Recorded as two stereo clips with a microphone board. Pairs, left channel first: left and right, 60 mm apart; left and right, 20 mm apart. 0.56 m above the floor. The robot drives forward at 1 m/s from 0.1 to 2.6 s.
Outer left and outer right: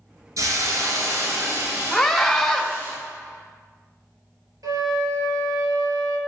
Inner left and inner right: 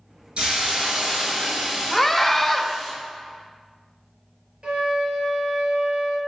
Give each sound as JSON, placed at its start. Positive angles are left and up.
{"t": 0.4, "sound": "a hiss", "side_deg": -60, "distance_m": 3.0}
{"t": 1.9, "sound": "a scream", "side_deg": 5, "distance_m": 1.5}
{"t": 4.6, "sound": "a flute", "side_deg": -70, "distance_m": 2.5}